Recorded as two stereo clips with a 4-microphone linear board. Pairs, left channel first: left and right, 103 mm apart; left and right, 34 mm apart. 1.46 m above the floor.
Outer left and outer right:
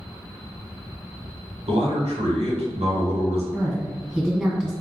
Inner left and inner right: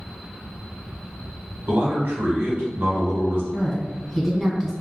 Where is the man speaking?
85° right, 1.2 m.